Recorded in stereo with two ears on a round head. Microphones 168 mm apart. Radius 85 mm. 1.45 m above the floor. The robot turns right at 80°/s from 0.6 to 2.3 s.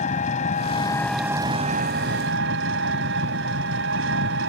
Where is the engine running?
135° left; by 4.5 s 90° right.